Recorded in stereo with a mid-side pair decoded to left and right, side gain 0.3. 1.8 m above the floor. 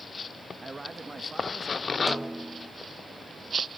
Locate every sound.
0.6 s a man speaking: 30° right, 2 m; by 2.0 s 25° right, 3.5 m
2.1 s a snare drum: 10° right, 0.8 m